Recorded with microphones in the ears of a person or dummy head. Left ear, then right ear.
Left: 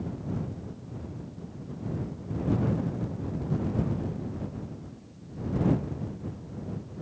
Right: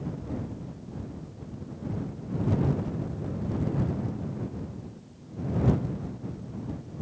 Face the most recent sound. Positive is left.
No sound to turn to.